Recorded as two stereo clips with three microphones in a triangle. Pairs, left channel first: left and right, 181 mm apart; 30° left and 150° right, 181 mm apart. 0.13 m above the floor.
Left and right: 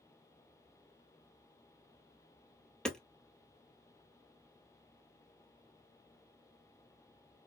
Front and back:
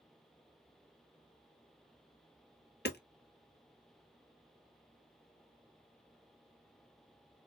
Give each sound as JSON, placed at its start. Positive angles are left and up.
{"t": 2.9, "sound": "hammering", "azimuth_deg": 5, "distance_m": 0.8}